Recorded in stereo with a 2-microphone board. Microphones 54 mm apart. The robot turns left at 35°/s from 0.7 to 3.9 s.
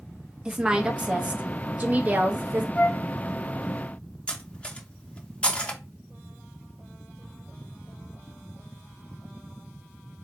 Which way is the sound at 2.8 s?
30° left (ahead or behind).